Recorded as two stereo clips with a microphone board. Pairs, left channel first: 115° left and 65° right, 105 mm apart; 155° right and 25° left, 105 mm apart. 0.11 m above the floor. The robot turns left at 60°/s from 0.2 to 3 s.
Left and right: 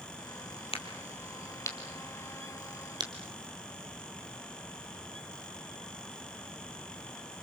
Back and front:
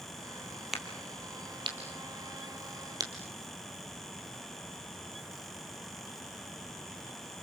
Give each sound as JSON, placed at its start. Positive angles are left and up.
{"t": 0.7, "sound": "a crack", "azimuth_deg": 110, "distance_m": 3.0}